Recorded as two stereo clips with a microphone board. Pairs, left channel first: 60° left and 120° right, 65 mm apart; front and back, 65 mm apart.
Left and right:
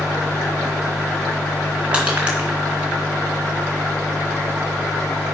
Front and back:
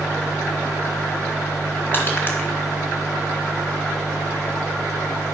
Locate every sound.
1.9 s crushing: 50° right, 2.5 m